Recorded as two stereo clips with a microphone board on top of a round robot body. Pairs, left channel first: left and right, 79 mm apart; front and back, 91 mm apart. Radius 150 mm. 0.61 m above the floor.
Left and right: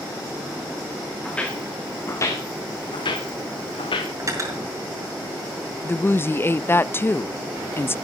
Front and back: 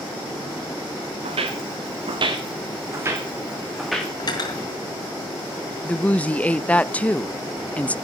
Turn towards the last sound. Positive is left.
turn(degrees=60)